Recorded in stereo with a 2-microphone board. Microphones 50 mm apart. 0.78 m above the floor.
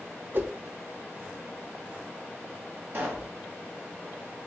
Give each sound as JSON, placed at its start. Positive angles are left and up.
{"t": 0.3, "sound": "a whoosh", "side_deg": -50, "distance_m": 0.8}
{"t": 2.9, "sound": "a pop", "side_deg": -45, "distance_m": 1.8}